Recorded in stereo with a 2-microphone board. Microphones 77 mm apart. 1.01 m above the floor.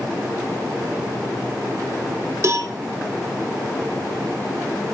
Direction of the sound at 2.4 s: 40° right (ahead or behind).